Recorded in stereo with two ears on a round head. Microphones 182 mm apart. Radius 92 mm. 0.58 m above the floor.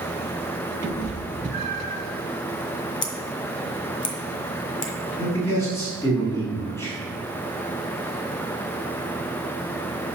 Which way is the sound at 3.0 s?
25° left (ahead or behind).